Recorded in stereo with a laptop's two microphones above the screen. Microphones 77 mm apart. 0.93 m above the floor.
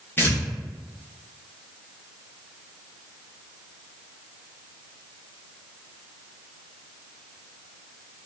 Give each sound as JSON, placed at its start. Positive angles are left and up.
{"t": 0.2, "sound": "tearing paper", "side_deg": 30, "distance_m": 0.5}